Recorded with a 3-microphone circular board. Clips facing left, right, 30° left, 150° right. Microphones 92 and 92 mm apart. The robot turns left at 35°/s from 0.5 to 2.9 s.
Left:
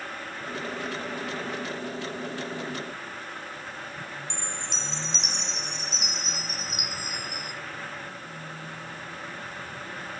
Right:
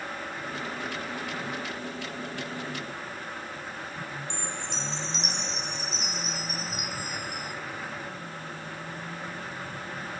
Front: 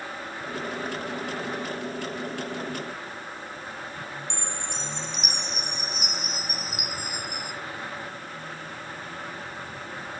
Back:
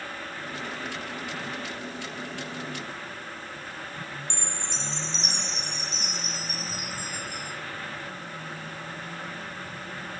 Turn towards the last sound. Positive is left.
turn(degrees=105)